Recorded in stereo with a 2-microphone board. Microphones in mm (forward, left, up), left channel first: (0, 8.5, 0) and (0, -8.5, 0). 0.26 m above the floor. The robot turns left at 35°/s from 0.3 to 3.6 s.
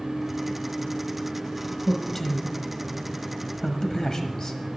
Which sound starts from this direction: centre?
A man speaking, at 1.9 s.